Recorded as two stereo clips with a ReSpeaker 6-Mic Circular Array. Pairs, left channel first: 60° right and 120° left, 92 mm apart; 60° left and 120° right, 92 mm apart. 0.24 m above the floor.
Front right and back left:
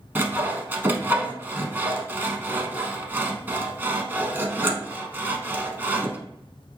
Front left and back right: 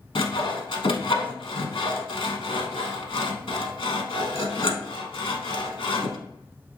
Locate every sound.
0.1 s sawing: 55° left, 0.6 m